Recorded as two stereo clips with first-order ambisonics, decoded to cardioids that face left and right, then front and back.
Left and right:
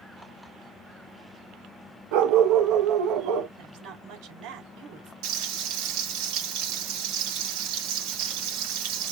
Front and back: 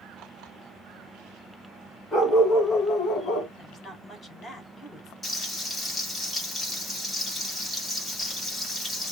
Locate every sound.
2.1 s a dog barking: 85° right, 1.5 m; by 3.5 s 60° right, 1.7 m
3.6 s a woman speaking: 80° right, 3 m
5.2 s frying: 75° right, 3 m